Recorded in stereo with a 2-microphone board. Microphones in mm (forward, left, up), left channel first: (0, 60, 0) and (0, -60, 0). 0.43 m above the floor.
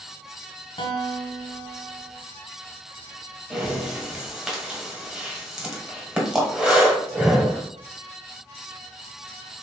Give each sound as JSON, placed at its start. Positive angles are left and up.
{"t": 0.8, "sound": "a guitar", "side_deg": 50, "distance_m": 1.2}
{"t": 3.5, "sound": "breathing", "side_deg": -5, "distance_m": 1.3}